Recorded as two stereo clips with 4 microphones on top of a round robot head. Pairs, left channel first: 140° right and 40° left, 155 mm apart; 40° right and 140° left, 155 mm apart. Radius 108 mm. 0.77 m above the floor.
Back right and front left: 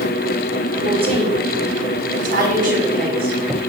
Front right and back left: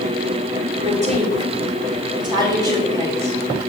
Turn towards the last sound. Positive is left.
turn(degrees=65)